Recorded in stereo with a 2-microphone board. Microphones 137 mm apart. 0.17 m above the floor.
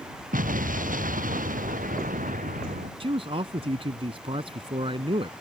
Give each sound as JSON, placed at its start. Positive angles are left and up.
{"t": 0.3, "sound": "an explosion", "side_deg": -75}
{"t": 3.0, "sound": "a man speaking", "side_deg": -45}